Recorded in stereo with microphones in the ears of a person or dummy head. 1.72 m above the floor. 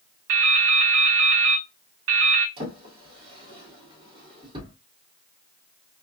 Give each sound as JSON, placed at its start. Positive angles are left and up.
{"t": 0.3, "sound": "dripping", "side_deg": -65, "distance_m": 0.8}
{"t": 2.6, "sound": "a drawer", "side_deg": -30, "distance_m": 1.6}